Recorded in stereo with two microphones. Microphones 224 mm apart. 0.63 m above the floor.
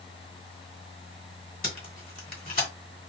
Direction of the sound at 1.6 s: 40° left (ahead or behind).